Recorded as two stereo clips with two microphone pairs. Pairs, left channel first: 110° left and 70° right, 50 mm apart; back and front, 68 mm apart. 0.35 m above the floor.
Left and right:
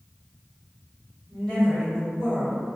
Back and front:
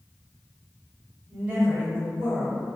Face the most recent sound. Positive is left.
turn(degrees=50)